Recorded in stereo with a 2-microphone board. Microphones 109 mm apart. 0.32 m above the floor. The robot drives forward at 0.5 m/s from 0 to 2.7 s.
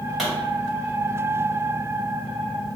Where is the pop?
Centre (ahead or behind), 1.9 m.